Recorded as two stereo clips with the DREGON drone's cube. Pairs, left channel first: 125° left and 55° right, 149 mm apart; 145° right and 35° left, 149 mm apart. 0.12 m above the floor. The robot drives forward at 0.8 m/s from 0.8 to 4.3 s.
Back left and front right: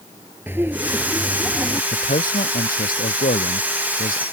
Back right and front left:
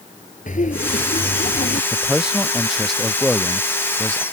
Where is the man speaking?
120° left; by 4.2 s 130° left.